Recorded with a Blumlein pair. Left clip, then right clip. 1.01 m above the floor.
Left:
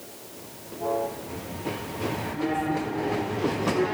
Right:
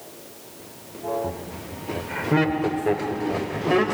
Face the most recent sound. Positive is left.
turn(degrees=-35)